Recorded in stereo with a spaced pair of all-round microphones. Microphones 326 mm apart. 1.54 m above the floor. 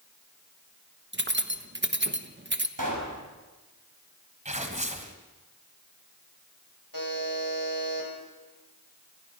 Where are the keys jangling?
35° right (ahead or behind), 1.1 m.